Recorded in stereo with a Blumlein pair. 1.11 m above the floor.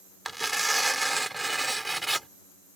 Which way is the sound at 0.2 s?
5° right.